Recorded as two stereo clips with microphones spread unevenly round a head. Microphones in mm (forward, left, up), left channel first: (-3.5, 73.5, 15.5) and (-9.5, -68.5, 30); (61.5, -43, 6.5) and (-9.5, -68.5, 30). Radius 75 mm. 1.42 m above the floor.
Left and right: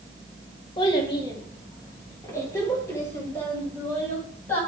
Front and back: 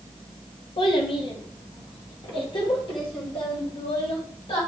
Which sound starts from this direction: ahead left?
A child speaking, at 0.8 s.